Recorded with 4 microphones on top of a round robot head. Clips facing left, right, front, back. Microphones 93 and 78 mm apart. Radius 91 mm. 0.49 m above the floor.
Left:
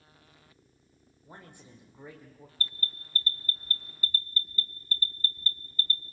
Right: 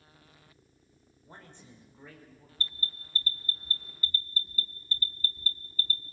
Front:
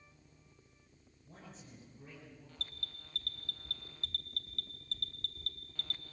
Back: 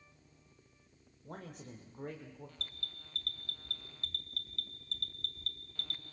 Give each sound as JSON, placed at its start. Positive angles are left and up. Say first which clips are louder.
{"t": 1.2, "sound": "a man speaking", "louder": "left 1 dB, back 7 dB", "azimuth_deg": 170, "distance_m": 2.0}
{"t": 2.6, "sound": "an alarm", "louder": "left 1 dB, even", "azimuth_deg": -95, "distance_m": 1.2}